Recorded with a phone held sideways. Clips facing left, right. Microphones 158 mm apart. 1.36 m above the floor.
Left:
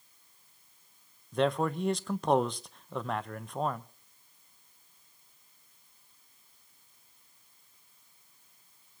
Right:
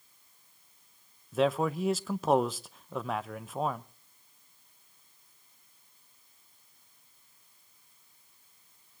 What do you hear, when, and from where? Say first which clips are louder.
1.3 s a man speaking: right 1 dB; 5° right (ahead or behind), 0.8 m